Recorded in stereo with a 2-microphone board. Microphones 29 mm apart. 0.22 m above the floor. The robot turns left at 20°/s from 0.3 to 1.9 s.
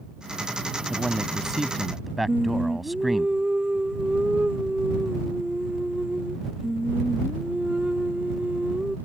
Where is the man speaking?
15° right (ahead or behind); by 3.3 s 5° right (ahead or behind).